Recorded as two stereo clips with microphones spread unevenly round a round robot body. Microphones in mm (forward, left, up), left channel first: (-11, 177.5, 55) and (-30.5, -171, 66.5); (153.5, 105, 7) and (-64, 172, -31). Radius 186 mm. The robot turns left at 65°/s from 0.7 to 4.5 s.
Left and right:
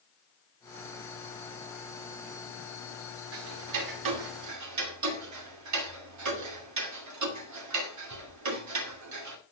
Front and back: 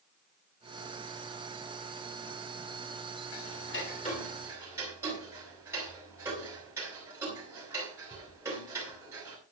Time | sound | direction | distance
3.3 | ticking | 45° right | 2.5 m